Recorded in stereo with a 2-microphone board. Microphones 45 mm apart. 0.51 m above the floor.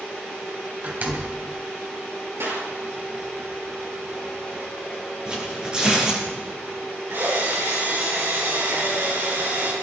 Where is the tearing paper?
20° right (ahead or behind), 7.5 m.